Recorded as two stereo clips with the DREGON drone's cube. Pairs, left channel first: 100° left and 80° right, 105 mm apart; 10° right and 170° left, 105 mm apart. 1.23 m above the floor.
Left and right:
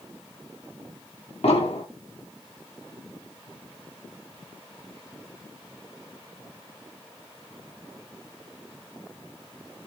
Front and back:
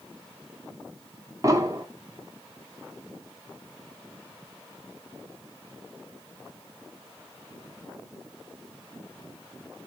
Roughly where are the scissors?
No scissors in this recording.